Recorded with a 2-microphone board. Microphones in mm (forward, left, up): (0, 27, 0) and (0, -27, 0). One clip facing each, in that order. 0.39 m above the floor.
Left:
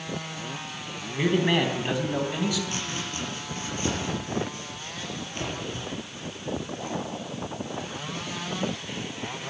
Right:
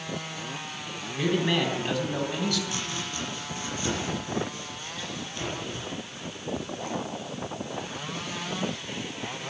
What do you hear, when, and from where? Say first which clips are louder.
1.2 s a man speaking: left 2 dB; 30° left (ahead or behind), 3.5 m; by 2.6 s 10° left (ahead or behind), 3 m
2.7 s chopping: left 1 dB; 40° left (ahead or behind), 6 m